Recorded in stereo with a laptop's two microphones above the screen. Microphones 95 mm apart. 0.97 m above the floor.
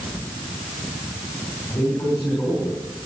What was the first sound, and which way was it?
A man speaking, 20° left (ahead or behind).